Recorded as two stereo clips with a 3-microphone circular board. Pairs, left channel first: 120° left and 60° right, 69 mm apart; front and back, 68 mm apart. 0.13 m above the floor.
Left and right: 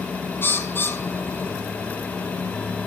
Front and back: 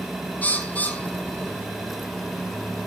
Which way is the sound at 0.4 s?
65° left.